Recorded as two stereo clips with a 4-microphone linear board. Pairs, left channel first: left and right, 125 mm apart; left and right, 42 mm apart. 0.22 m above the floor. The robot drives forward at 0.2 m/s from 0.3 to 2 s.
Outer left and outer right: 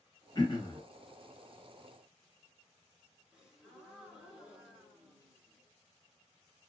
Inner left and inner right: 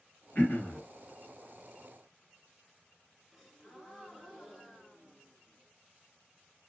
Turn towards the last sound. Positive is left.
turn(degrees=-5)  # may be behind; listen again after turning